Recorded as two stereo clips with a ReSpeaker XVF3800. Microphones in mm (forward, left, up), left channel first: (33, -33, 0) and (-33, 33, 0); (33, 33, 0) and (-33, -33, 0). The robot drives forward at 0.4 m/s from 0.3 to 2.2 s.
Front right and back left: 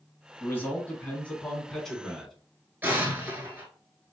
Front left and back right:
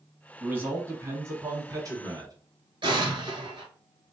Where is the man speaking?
80° right, 1.3 m; by 2.3 s 130° right, 1.4 m.